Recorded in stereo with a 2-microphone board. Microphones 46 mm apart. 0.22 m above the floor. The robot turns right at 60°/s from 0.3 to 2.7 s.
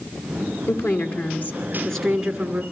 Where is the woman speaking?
95° left, 2.5 m; by 2.6 s 145° right, 2.5 m.